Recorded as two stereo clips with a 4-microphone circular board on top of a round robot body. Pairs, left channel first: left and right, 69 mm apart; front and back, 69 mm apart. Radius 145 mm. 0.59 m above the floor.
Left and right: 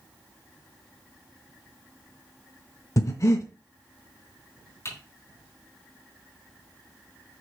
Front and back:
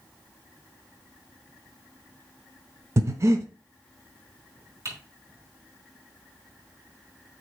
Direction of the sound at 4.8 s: 135° left.